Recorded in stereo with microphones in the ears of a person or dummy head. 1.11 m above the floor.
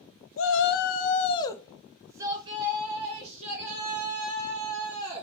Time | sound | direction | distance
0.4 | a shout | 60° left (ahead or behind) | 0.7 m